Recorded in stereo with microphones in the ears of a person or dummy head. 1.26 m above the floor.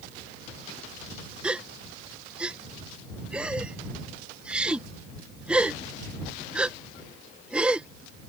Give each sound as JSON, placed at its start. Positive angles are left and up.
{"t": 1.4, "sound": "a gasp", "side_deg": -5}